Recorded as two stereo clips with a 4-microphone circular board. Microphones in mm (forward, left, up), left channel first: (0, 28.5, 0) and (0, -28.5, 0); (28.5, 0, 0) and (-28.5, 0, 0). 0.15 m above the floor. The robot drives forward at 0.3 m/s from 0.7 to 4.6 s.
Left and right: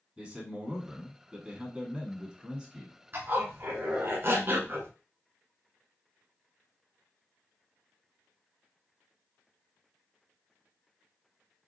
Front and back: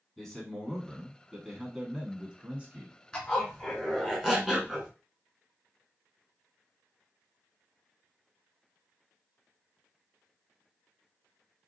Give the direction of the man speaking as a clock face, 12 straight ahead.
2 o'clock.